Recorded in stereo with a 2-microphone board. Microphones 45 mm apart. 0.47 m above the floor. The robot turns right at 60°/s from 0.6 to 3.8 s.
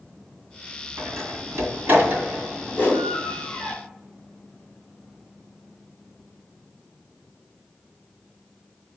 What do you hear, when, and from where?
1.0 s a door slam: 70° right (ahead or behind), 2 m; by 3.7 s 60° left (ahead or behind), 2 m
2.7 s a whoosh: 55° left (ahead or behind), 2.5 m; by 3.1 s 65° left (ahead or behind), 2.5 m